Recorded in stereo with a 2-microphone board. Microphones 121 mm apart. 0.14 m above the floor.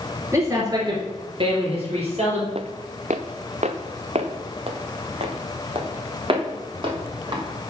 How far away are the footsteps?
About 0.6 m.